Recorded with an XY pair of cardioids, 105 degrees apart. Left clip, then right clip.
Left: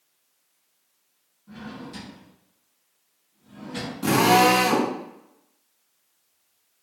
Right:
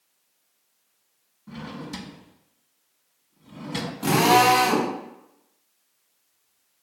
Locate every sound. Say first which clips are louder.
1.5 s a drawer: right 2 dB; 60° right, 1.1 m
4.0 s a drill: even; 5° right, 2 m